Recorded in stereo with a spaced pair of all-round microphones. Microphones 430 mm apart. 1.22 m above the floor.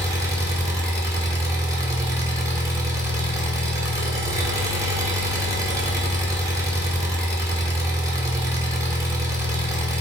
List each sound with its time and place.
0.0 s an engine running: 5° right (ahead or behind), 1.0 m